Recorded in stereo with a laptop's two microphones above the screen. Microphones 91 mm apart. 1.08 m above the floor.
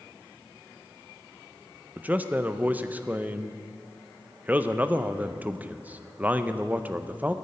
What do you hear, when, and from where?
2.0 s a man speaking: 15° right (ahead or behind), 0.6 m